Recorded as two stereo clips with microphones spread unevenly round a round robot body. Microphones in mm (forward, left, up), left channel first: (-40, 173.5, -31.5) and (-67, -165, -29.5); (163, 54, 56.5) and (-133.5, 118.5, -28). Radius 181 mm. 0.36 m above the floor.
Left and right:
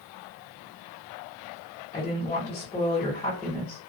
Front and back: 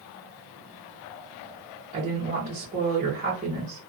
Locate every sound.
1.9 s a woman speaking: 150° left, 1.1 m